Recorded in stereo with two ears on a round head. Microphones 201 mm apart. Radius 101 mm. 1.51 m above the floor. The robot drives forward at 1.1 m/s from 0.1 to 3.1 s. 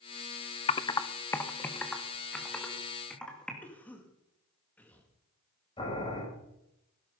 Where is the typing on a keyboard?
25° left (ahead or behind), 0.6 m; by 3.5 s 5° left (ahead or behind), 3 m.